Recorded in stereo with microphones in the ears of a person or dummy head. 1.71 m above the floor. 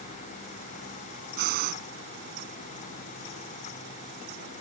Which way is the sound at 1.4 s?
50° right (ahead or behind).